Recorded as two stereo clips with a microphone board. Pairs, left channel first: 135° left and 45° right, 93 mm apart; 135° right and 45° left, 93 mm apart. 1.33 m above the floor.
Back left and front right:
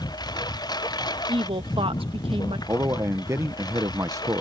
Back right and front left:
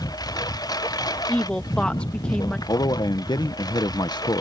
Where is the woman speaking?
55° right.